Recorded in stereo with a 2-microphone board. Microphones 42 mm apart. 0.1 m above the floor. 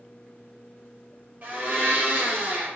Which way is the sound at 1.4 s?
40° right (ahead or behind).